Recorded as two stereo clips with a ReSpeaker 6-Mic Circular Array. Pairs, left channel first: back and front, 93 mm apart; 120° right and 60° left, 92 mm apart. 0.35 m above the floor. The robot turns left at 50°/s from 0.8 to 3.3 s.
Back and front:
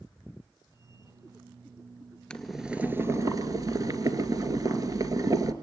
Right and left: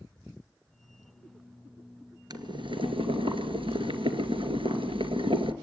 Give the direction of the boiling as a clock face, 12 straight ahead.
9 o'clock.